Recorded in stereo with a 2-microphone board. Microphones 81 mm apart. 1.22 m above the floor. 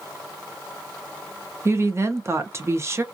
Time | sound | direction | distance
1.6 | a woman speaking | 35° right (ahead or behind) | 0.8 m